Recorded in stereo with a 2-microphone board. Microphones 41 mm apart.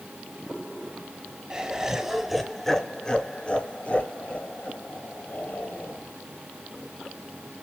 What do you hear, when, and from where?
1.5 s laughter: 20° right (ahead or behind), 1.2 m; by 6.0 s 45° left (ahead or behind), 1.9 m